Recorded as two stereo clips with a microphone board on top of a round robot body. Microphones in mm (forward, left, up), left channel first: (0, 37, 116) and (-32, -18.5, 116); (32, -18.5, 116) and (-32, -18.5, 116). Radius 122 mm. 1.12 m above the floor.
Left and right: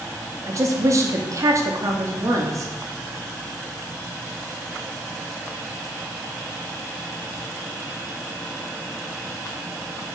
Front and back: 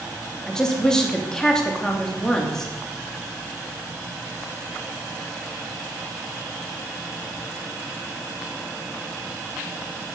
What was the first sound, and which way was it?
A woman speaking, 80° right.